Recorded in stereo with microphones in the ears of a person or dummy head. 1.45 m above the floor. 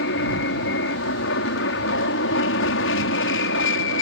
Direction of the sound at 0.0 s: 70° left (ahead or behind).